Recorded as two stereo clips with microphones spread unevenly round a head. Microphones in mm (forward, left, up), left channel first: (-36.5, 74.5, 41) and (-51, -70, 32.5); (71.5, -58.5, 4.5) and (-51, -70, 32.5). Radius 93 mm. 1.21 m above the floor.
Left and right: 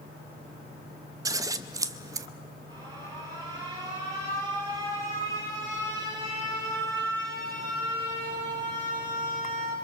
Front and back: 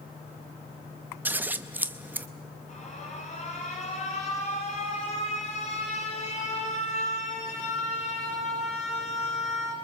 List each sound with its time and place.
1.2 s scissors: 150° right, 0.5 m
2.7 s an alarm: 25° right, 5 m